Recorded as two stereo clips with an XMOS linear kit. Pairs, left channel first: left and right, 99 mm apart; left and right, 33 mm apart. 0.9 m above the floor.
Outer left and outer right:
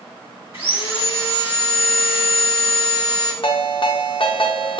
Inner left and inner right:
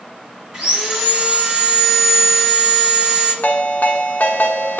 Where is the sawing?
20° right (ahead or behind), 1.8 m.